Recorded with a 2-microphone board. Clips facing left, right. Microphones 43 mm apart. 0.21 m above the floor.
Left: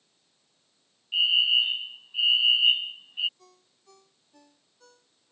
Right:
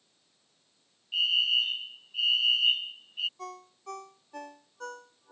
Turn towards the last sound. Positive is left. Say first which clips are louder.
# right 17 dB
turn(degrees=-65)  # may be behind; listen again after turning